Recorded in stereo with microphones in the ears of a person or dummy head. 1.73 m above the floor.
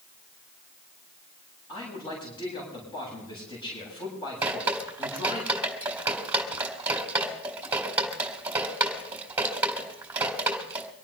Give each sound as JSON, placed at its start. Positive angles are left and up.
{"t": 1.7, "sound": "a man speaking", "side_deg": 25, "distance_m": 9.0}
{"t": 4.4, "sound": "dripping", "side_deg": -10, "distance_m": 3.5}